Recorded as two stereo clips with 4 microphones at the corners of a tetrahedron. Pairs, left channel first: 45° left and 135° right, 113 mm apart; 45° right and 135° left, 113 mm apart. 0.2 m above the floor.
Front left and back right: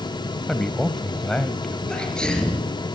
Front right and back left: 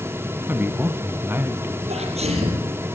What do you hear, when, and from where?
0.5 s a man speaking: 120° left, 1.0 m
1.9 s a sneeze: 125° left, 4.5 m